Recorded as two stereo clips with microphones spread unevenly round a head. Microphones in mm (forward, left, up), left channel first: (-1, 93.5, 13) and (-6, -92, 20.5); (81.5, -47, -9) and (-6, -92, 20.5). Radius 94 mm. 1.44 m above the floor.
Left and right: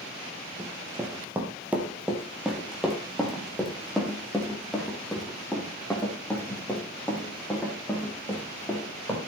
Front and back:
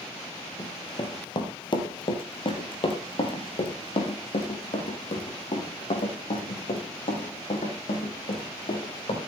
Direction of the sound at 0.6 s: 20° right.